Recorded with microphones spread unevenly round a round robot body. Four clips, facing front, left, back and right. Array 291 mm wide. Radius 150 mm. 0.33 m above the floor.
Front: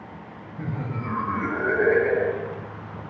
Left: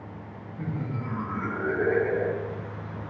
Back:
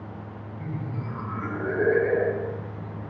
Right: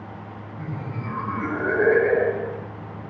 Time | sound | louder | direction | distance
0.6 | laughter | left 1 dB, front 4 dB | 5° right | 1.8 m